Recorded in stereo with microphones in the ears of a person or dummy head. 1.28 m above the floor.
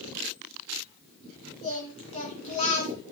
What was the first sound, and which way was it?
Singing, 30° left (ahead or behind).